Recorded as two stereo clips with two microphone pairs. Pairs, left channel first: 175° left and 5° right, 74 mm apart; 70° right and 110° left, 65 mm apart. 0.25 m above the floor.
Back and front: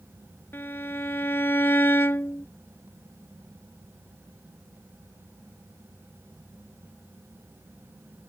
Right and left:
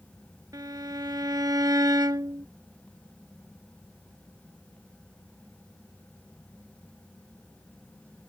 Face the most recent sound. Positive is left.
turn(degrees=120)